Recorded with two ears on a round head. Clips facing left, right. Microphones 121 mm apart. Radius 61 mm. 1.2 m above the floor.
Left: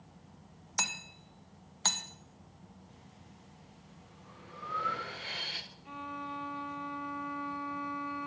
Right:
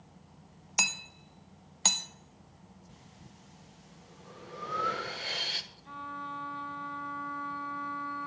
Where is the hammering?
20° right (ahead or behind), 1.3 m.